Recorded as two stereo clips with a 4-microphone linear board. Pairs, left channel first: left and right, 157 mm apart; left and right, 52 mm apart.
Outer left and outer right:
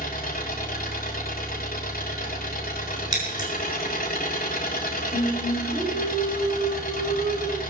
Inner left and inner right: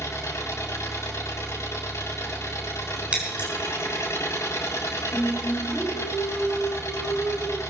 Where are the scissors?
25° right (ahead or behind), 6 m.